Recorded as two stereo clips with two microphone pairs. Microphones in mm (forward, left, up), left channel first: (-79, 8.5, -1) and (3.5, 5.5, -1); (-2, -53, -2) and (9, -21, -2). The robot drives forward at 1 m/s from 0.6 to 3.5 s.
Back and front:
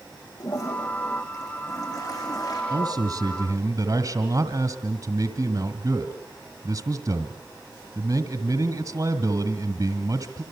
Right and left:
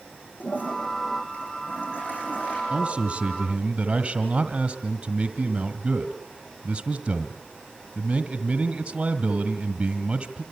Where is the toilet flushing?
135° right, 8.5 m; by 2.6 s 140° right, 10 m.